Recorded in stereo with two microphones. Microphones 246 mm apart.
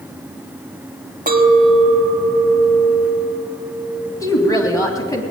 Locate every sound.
1.3 s a clink: 35° right (ahead or behind), 1.3 m
4.2 s a woman speaking: 15° left (ahead or behind), 2.5 m